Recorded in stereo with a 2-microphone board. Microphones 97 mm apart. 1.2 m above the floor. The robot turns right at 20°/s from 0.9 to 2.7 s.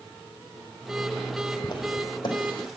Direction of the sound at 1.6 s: 40° left (ahead or behind).